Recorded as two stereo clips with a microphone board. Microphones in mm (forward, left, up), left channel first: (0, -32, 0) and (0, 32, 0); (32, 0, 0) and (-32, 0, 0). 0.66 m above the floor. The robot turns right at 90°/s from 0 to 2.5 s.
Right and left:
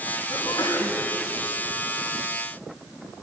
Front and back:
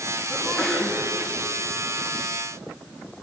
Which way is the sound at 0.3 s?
125° right.